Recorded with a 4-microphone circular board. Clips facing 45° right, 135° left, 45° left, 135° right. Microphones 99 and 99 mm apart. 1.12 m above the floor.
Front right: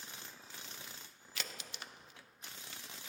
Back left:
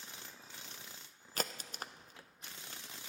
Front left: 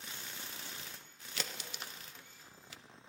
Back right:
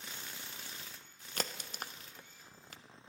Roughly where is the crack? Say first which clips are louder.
Back left 7 dB, back right 3 dB; behind.